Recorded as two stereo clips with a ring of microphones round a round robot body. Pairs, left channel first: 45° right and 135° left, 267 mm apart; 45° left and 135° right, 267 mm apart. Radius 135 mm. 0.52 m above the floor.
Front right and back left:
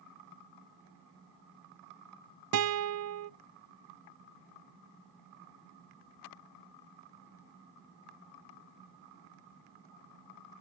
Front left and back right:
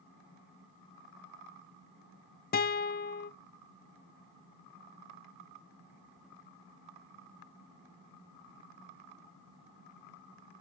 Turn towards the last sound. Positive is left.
turn(degrees=100)